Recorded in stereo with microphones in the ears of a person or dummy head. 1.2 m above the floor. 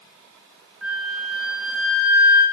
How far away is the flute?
About 2 m.